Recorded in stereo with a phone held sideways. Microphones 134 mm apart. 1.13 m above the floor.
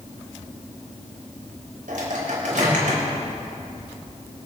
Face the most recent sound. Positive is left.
turn(degrees=-80)